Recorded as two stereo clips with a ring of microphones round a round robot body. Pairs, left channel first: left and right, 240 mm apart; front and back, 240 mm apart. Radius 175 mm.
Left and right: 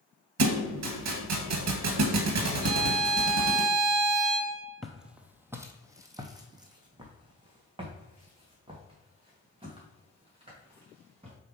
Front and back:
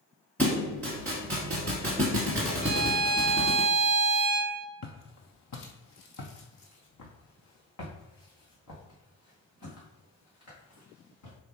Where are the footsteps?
Straight ahead, 0.8 m; by 11.4 s 25° right, 4 m.